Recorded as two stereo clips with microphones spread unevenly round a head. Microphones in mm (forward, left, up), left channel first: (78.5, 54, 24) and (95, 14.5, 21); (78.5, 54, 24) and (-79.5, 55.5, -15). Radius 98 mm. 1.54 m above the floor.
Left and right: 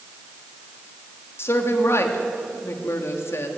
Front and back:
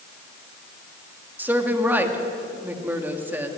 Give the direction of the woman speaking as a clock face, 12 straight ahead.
9 o'clock.